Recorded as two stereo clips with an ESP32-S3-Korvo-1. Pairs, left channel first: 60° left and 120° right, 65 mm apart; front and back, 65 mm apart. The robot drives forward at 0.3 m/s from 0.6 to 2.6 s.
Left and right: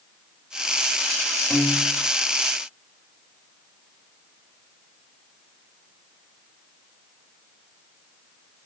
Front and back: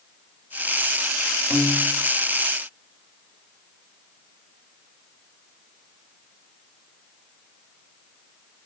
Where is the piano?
120° left, 1.0 m; by 2.0 s 130° left, 1.1 m.